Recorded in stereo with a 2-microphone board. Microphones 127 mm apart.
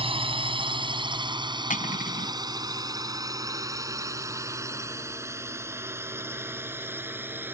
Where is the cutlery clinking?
85° left.